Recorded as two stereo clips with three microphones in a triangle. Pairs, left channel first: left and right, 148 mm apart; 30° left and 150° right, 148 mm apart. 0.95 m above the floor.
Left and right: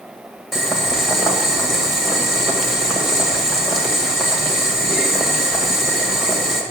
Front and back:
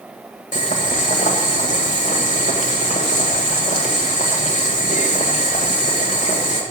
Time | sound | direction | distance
0.5 | boiling | straight ahead | 1.7 m